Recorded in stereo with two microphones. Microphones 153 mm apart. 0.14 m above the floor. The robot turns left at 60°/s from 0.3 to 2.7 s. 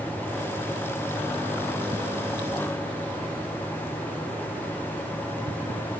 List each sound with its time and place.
Only background noise.